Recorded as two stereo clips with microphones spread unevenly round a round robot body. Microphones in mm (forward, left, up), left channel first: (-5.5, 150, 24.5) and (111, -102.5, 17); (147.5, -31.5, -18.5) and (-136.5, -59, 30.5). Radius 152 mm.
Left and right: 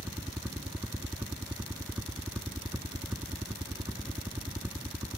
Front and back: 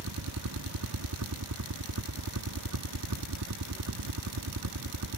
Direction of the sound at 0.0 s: 150° right.